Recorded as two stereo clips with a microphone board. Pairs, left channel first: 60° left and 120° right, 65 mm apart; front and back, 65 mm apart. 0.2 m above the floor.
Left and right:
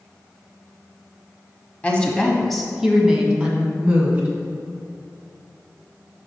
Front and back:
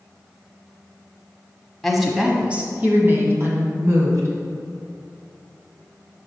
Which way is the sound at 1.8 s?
80° left.